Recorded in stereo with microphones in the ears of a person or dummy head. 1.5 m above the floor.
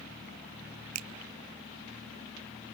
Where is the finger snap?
85° right, 0.8 m.